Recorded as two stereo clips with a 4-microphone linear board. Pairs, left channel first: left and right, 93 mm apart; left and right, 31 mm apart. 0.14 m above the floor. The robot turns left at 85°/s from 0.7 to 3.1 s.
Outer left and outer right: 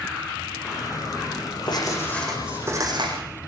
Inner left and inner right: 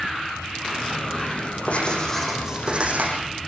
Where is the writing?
55° left, 7 m; by 3.2 s 65° right, 7 m.